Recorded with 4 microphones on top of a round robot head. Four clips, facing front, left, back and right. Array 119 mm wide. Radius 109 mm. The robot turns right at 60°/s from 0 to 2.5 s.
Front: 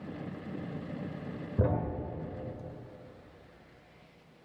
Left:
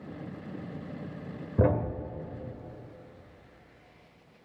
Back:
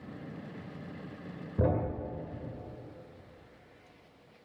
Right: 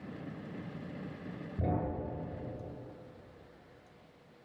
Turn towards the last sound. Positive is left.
turn(degrees=145)